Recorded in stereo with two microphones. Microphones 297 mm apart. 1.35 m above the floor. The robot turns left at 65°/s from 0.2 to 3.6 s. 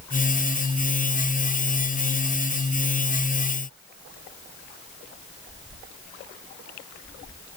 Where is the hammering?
I don't hear hammering.